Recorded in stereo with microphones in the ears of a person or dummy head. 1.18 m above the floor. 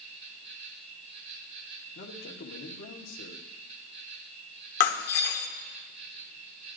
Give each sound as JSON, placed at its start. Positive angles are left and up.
{"t": 0.0, "sound": "an insect", "side_deg": -45, "distance_m": 4.0}
{"t": 1.9, "sound": "a man speaking", "side_deg": 75, "distance_m": 1.2}
{"t": 4.8, "sound": "breaking glass", "side_deg": 55, "distance_m": 0.9}